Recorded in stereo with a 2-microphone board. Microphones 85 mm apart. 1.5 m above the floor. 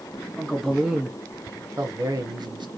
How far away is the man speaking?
About 1.2 m.